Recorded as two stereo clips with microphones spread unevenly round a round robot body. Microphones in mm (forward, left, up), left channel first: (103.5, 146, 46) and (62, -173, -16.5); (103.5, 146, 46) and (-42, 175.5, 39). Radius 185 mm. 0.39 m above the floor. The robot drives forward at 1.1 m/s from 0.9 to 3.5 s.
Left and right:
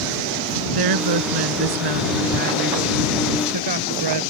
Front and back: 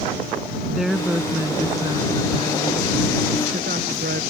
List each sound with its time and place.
0.8 s a woman speaking: 105° right; by 4.2 s 130° right